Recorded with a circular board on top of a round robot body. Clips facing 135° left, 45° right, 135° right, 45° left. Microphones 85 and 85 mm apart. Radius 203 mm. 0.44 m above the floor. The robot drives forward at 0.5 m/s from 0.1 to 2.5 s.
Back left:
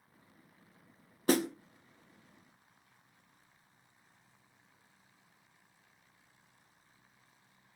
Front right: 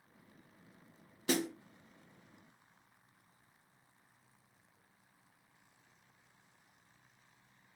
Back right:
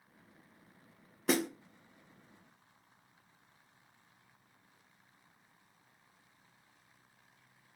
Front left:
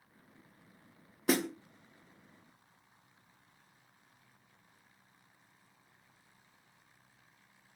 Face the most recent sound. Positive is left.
turn(degrees=160)